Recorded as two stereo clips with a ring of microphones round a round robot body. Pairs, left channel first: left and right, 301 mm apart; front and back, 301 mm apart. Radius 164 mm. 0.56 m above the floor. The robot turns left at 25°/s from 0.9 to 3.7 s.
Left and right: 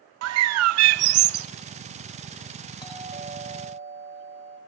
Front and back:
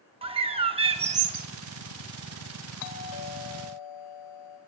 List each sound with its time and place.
0.2 s a bird: 110° right, 0.5 m; by 1.5 s 125° right, 0.5 m
2.8 s a doorbell: 15° left, 3 m; by 4.6 s 10° right, 3 m